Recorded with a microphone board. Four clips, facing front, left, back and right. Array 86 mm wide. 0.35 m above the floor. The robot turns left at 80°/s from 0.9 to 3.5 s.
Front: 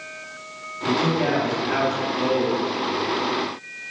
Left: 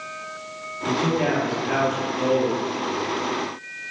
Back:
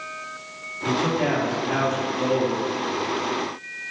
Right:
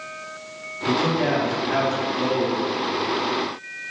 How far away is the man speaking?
About 1.7 m.